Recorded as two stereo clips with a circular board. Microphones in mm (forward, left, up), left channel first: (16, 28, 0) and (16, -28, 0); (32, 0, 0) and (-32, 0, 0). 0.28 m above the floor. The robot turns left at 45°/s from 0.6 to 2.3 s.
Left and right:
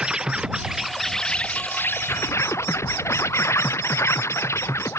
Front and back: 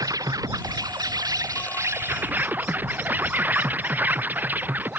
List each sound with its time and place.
0.0 s an insect: 165° right; by 5.0 s 120° left